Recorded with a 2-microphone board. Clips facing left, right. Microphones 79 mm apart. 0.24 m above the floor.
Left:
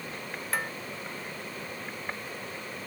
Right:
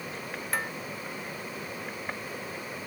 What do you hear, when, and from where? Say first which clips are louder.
0.5 s dishes clattering: even; centre (ahead or behind)